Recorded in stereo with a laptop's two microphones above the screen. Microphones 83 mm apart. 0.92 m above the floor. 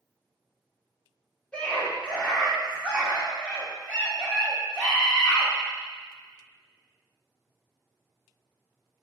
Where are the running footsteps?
No running footsteps in this recording.